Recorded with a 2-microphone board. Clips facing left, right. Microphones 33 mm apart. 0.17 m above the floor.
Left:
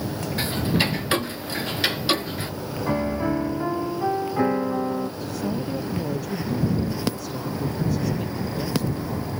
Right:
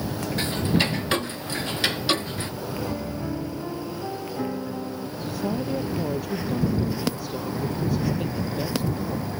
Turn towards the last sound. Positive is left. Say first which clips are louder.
# even
turn(degrees=-15)  # may be behind; listen again after turning